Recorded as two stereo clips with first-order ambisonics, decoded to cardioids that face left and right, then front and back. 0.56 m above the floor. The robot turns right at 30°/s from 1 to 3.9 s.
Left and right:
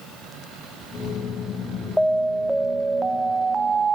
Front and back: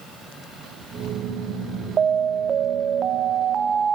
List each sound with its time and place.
2.0 s an alarm: 170° left, 0.6 m; by 4.0 s 130° right, 0.6 m